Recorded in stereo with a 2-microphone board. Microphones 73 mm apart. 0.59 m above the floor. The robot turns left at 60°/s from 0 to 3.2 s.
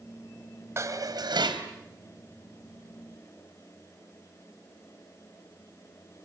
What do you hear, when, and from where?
0.8 s dishes clattering: 35° right, 2.5 m; by 1.7 s 90° right, 2.5 m